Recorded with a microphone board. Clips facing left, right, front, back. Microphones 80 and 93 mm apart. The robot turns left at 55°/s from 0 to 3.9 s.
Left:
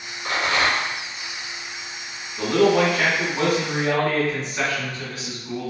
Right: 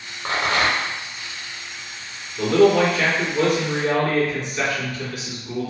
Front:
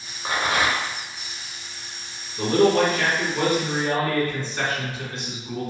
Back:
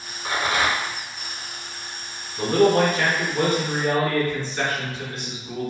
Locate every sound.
0.2 s a rattle: 65° right, 0.6 m; by 1.0 s 105° right, 0.6 m
2.4 s a man speaking: 135° left, 1.9 m; by 5.7 s 50° left, 1.9 m